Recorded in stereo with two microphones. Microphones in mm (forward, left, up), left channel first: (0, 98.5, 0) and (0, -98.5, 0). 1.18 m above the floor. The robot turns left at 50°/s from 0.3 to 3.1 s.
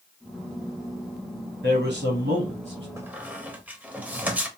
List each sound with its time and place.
1.6 s a man speaking: 85° right, 0.8 m; by 2.9 s 145° right, 0.8 m
3.0 s a squeak: 15° right (ahead or behind), 0.5 m; by 4.5 s 10° right (ahead or behind), 0.5 m